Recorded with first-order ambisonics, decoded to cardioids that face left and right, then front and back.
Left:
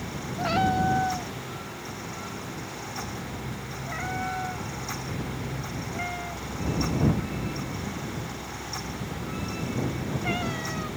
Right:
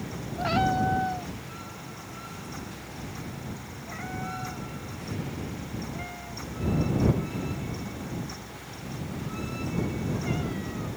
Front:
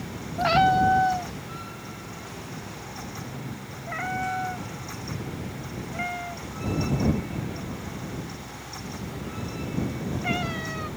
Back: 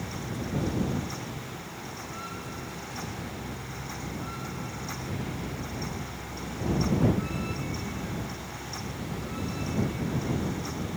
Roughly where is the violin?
No violin in this recording.